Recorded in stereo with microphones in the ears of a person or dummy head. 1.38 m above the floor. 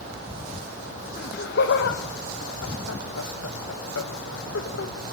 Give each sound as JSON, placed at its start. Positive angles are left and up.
{"t": 1.2, "sound": "laughter", "side_deg": 50, "distance_m": 1.9}